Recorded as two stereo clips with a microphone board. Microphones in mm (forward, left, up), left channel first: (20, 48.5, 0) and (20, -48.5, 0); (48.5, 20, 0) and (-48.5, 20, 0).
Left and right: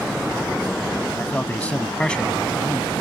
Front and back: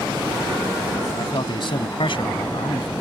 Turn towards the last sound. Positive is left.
turn(degrees=5)